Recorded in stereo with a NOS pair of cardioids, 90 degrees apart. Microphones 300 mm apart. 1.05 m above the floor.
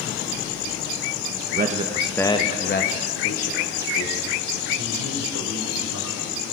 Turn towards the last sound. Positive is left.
turn(degrees=70)